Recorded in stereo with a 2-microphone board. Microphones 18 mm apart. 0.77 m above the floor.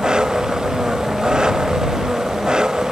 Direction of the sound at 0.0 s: 50° right (ahead or behind).